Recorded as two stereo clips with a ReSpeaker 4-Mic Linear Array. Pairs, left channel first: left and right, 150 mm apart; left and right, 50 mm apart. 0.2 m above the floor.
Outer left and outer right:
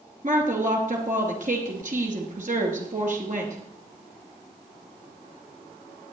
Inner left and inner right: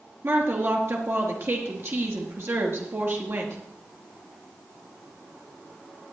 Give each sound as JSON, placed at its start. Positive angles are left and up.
{"t": 0.2, "sound": "a woman speaking", "side_deg": -55, "distance_m": 2.5}